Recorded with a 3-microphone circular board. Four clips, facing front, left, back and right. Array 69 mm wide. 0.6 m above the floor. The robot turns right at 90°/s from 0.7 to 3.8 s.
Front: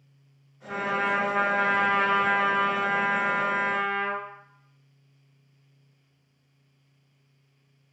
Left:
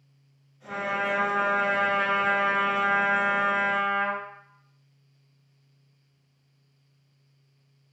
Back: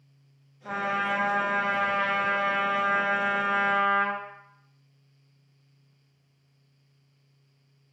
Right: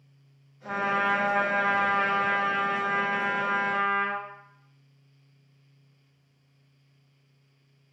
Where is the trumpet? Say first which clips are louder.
Right 2 dB, front 1 dB; 140° right, 1.0 m; by 4.2 s 140° left, 1.0 m.